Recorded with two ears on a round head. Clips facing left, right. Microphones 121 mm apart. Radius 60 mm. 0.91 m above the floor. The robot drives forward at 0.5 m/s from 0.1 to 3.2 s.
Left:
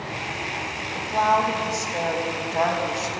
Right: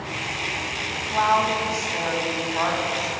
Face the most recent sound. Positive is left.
turn(degrees=45)  # may be behind; listen again after turning